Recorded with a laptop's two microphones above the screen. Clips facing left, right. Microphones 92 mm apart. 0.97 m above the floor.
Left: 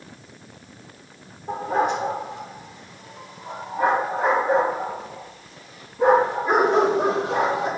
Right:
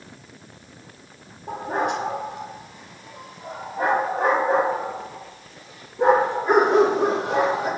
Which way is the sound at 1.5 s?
60° right (ahead or behind).